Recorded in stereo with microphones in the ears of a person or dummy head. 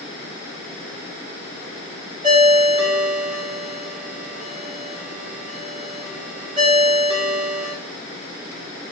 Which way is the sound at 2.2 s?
30° right (ahead or behind).